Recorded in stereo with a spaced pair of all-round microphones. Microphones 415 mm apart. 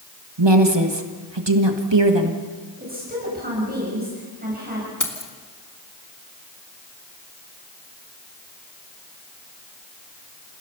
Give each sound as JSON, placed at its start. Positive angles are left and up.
{"t": 0.4, "sound": "a woman speaking", "side_deg": -75, "distance_m": 1.7}
{"t": 2.8, "sound": "a woman speaking", "side_deg": -20, "distance_m": 7.0}
{"t": 5.0, "sound": "keys jangling", "side_deg": 45, "distance_m": 2.0}